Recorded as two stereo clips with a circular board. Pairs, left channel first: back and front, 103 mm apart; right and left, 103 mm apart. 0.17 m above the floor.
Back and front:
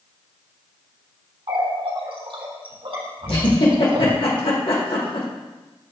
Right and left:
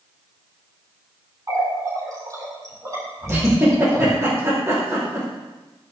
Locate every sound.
1.5 s a running tap: 35° left, 3.5 m
3.3 s a giggle: 150° left, 5 m